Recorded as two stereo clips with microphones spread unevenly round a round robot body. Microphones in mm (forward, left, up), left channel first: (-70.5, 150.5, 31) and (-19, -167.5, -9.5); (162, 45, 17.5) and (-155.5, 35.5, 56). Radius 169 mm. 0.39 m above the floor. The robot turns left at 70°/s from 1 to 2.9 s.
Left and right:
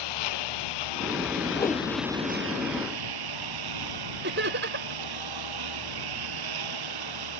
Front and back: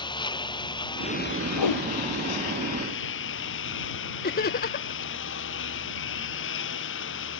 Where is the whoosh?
25° left; by 1.9 s straight ahead.